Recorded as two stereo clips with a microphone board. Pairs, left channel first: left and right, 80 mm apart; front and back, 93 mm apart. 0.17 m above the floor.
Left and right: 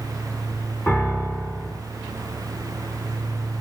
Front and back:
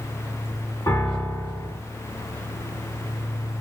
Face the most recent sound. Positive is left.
turn(degrees=25)